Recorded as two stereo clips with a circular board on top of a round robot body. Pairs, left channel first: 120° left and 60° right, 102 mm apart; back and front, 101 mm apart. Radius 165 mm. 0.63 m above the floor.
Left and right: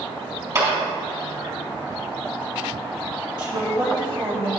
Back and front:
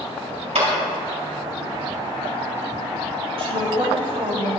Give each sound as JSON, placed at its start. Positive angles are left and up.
{"t": 0.6, "sound": "a clap", "azimuth_deg": -5, "distance_m": 4.0}
{"t": 3.4, "sound": "a woman speaking", "azimuth_deg": -20, "distance_m": 4.0}